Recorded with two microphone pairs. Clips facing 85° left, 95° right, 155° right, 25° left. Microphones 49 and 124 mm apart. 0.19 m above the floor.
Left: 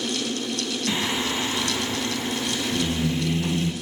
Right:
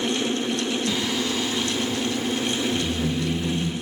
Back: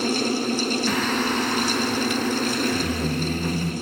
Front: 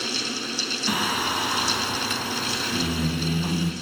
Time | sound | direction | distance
0.9 | singing | 85° left | 1.2 m